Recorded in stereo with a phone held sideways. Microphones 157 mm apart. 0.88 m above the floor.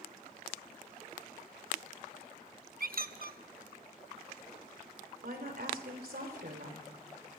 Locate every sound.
2.8 s a squeak: 70° right (ahead or behind), 0.6 m
5.2 s a woman speaking: 75° right (ahead or behind), 3.5 m